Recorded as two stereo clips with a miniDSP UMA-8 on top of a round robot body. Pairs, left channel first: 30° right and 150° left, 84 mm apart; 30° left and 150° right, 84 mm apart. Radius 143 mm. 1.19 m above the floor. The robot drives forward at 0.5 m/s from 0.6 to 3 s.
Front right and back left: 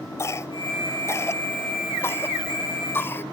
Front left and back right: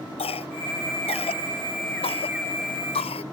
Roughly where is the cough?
Ahead left.